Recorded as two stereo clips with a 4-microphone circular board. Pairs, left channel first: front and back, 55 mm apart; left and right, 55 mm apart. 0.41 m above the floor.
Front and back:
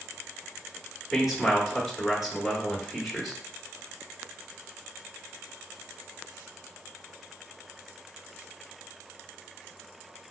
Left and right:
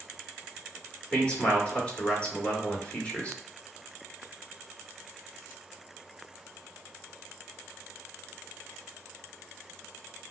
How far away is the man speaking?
About 1.2 m.